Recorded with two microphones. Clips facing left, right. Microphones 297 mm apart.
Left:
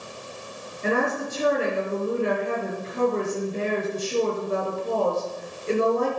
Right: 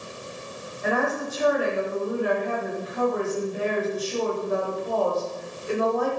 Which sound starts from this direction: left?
A woman speaking, at 0.8 s.